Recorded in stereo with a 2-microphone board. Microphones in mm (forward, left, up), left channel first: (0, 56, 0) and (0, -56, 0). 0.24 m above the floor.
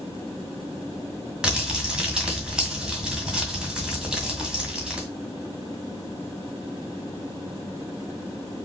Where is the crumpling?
10° right (ahead or behind), 1.8 m.